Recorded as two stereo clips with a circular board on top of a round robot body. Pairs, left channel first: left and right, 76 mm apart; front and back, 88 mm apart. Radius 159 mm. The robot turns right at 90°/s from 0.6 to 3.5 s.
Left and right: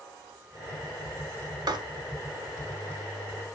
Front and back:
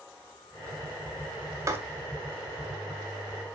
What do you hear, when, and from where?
1.7 s writing: 120° right, 1.6 m; by 1.8 s 115° right, 1.6 m